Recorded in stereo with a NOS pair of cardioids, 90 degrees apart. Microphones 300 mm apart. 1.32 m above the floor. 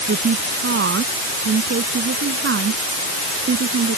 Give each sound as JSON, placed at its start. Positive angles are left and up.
{"t": 0.1, "sound": "a woman speaking", "azimuth_deg": -40}